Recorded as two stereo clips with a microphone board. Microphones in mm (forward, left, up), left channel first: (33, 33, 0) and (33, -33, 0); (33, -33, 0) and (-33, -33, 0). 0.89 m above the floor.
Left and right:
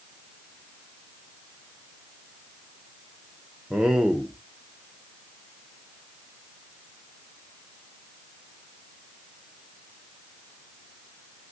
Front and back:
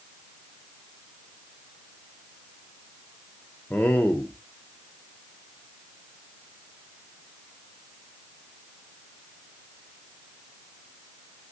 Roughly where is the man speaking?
Ahead.